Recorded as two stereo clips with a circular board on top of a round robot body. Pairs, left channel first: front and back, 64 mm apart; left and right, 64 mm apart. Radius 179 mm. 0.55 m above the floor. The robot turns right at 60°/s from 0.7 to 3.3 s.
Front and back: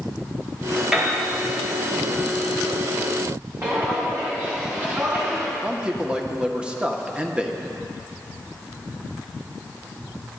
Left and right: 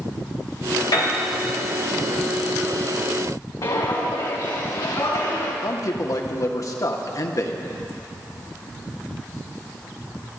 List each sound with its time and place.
0.9 s a piano: 95° left, 4 m; by 1.1 s 105° left, 4 m
3.6 s footsteps: 120° left, 3 m; by 5.5 s 115° left, 4.5 m
5.6 s a man speaking: 110° left, 1.5 m